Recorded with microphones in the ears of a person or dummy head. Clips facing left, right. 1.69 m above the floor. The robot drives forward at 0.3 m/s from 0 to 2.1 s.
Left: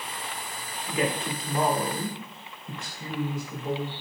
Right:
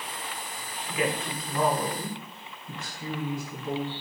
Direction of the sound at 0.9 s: 35° left (ahead or behind).